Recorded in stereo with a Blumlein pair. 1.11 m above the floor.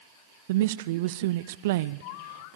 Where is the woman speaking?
55° right, 0.5 m.